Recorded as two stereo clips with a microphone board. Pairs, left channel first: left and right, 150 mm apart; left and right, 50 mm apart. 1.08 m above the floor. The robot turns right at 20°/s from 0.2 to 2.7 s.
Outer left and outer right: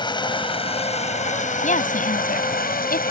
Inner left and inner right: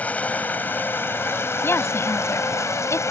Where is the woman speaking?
55° left (ahead or behind); by 3.1 s 75° left (ahead or behind).